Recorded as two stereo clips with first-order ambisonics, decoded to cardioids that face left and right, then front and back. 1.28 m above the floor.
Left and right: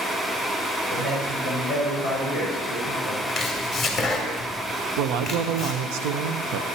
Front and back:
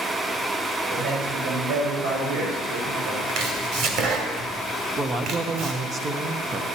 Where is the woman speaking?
110° right, 0.8 m.